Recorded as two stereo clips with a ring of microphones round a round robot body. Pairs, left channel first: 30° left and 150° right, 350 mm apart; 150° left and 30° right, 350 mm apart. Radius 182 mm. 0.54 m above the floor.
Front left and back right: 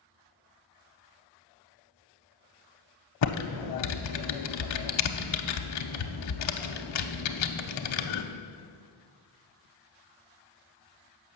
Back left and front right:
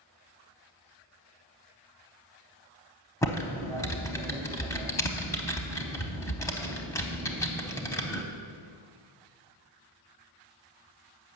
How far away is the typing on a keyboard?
About 0.5 m.